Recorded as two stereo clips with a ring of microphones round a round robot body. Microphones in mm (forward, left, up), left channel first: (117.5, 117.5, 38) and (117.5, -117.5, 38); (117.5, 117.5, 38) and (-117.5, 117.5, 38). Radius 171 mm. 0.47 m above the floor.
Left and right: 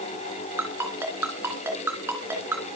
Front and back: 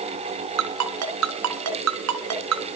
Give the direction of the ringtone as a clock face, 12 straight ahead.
6 o'clock.